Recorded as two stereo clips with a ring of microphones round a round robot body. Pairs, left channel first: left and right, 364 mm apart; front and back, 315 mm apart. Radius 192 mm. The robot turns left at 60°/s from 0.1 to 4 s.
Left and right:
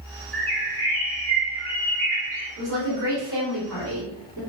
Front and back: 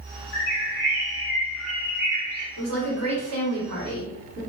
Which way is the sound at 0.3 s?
5° left.